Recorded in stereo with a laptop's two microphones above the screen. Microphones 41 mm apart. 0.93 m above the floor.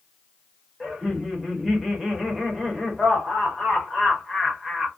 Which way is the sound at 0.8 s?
5° right (ahead or behind).